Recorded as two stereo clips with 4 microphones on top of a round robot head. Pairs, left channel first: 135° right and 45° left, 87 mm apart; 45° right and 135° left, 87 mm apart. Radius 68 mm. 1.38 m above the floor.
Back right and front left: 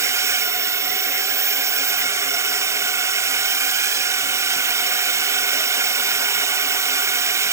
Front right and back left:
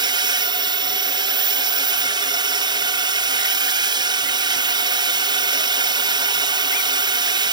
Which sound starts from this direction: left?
A drone, at 0.0 s.